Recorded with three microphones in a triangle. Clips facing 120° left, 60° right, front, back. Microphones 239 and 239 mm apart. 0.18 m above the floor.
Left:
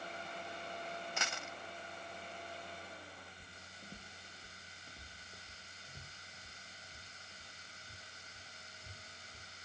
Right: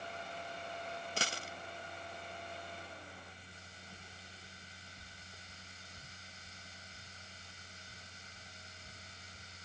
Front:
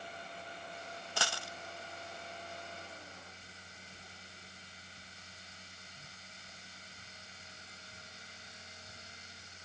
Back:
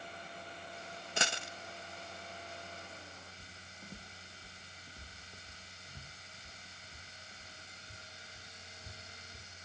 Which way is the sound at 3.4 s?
160° left.